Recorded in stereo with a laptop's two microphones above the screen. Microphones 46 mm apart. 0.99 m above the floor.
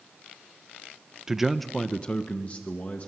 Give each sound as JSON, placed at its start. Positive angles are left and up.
{"t": 1.3, "sound": "a man speaking", "side_deg": -15, "distance_m": 0.8}